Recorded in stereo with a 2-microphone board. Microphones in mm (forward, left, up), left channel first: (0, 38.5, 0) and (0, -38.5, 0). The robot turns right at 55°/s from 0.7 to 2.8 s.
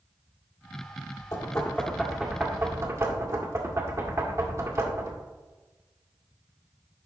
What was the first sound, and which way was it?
Knocking, 50° left (ahead or behind).